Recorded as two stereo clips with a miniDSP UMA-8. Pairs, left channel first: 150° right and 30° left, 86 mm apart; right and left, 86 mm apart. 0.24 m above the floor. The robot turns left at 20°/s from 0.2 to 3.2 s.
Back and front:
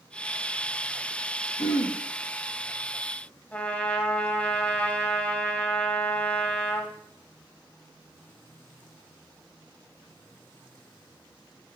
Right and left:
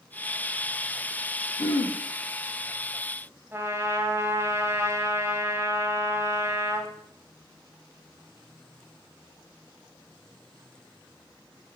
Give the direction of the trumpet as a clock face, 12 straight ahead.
7 o'clock.